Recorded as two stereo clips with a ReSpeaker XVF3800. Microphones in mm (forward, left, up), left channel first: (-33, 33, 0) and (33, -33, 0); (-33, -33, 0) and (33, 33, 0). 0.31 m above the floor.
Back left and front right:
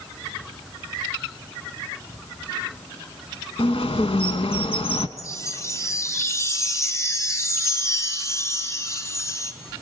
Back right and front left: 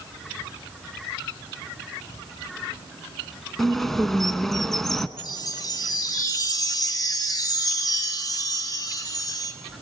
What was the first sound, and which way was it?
A bird, 140° left.